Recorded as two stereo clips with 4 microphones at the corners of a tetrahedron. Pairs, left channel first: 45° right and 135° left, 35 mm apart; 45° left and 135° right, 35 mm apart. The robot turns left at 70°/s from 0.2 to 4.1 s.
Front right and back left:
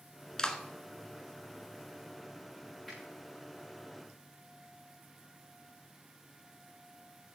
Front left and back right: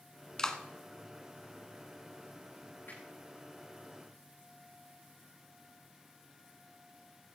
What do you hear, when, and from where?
0.4 s a clap: straight ahead, 1.4 m; by 0.6 s 15° right, 1.4 m
2.9 s a finger snap: 45° left, 8.5 m; by 3.0 s 35° left, 8.5 m